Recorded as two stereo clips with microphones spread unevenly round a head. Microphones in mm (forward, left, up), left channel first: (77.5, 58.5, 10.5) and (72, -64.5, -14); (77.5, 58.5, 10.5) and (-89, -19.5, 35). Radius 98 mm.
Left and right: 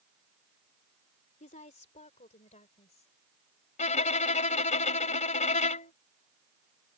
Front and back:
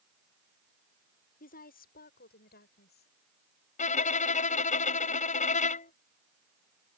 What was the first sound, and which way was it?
A woman speaking, 70° left.